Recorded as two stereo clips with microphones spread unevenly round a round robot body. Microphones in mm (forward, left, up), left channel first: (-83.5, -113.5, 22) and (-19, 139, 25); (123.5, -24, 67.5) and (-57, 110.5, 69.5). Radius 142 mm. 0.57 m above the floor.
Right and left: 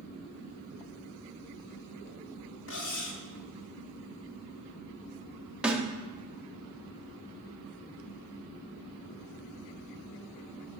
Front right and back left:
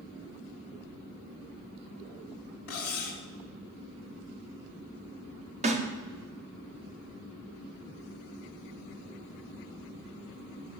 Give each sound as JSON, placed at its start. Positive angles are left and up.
{"t": 2.7, "sound": "cutlery clinking", "azimuth_deg": -55, "distance_m": 1.0}
{"t": 5.6, "sound": "a snare drum", "azimuth_deg": 160, "distance_m": 0.9}